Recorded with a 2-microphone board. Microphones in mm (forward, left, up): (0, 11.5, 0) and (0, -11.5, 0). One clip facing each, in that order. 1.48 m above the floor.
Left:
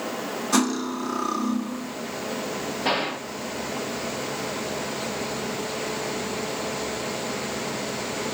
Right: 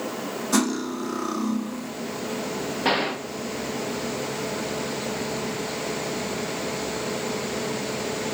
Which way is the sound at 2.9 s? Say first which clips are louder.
Right 2 dB; 20° right (ahead or behind).